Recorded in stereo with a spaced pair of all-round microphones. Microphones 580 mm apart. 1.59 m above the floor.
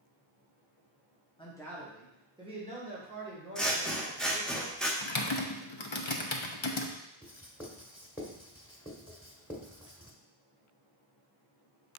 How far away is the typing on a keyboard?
About 0.8 m.